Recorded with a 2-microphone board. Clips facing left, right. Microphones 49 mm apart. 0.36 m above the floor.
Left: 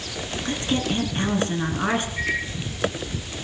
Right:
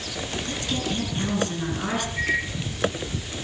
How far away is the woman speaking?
About 4 m.